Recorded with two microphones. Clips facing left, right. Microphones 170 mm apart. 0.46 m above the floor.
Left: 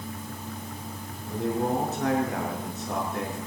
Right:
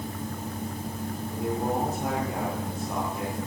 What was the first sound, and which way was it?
A man speaking, 80° left.